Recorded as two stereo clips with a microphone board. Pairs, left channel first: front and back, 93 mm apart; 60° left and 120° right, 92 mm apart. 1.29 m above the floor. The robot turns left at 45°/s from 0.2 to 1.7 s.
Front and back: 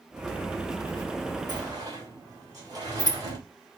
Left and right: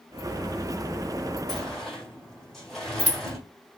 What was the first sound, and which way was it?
A sliding door, 160° left.